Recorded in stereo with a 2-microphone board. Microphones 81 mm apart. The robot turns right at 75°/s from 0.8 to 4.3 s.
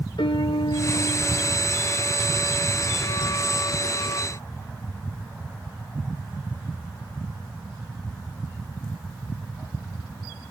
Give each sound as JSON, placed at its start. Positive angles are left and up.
{"t": 0.2, "sound": "a piano", "azimuth_deg": 95, "distance_m": 0.7}